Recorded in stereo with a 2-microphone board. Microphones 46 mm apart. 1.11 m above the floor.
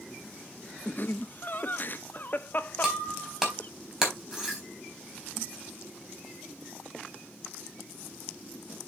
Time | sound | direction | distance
0.8 | laughter | 45° left (ahead or behind) | 1.0 m
2.8 | breaking glass | 10° right (ahead or behind) | 3.5 m